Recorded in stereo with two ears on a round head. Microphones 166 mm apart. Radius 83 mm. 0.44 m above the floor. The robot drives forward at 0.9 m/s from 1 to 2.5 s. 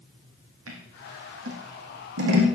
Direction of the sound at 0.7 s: 85° right.